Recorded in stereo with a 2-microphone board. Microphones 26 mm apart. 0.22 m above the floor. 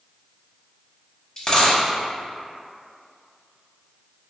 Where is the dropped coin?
30° left (ahead or behind), 0.6 m.